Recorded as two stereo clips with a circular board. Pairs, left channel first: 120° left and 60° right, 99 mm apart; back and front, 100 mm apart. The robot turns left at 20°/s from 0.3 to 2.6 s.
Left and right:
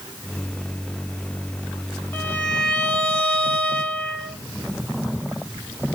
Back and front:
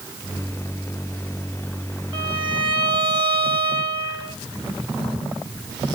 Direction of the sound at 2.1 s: 45° left.